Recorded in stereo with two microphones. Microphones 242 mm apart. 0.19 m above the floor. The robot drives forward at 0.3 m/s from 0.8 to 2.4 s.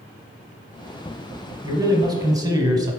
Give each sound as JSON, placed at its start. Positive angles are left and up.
{"t": 1.6, "sound": "a man speaking", "side_deg": -15, "distance_m": 1.1}